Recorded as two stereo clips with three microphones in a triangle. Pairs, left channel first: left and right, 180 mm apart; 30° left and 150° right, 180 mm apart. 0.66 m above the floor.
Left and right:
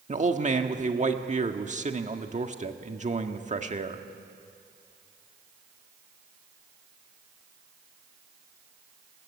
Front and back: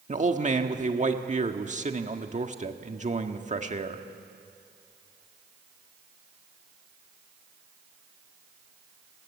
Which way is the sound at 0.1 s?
120° right.